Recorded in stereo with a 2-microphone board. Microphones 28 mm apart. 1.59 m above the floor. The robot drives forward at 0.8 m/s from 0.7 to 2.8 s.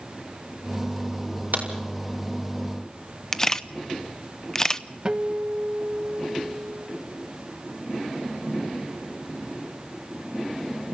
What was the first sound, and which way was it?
A crack, 85° right.